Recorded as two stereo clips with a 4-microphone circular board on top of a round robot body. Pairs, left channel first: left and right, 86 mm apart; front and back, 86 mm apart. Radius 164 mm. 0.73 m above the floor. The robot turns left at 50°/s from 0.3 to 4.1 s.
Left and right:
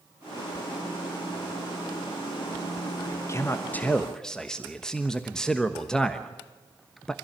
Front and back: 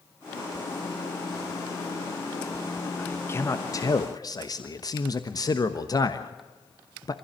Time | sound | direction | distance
3.0 | a man speaking | 65° left | 1.4 m